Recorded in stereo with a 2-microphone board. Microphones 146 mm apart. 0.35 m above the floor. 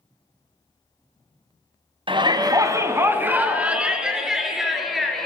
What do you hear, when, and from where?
2.1 s a shout: 35° right (ahead or behind), 2 m; by 5.3 s centre (ahead or behind), 5.5 m